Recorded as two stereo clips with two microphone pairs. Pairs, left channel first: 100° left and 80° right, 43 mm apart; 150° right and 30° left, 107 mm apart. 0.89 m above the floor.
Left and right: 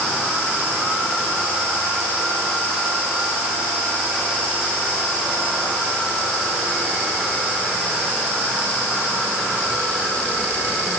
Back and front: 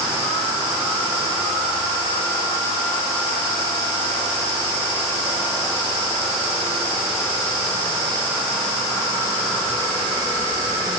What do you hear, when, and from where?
Only background noise.